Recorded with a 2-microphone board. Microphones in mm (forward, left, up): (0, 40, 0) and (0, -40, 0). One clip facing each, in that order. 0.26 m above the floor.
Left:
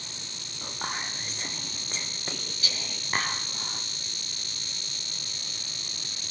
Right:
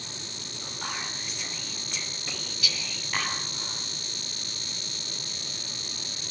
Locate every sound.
0.6 s whispering: 35° left (ahead or behind), 5 m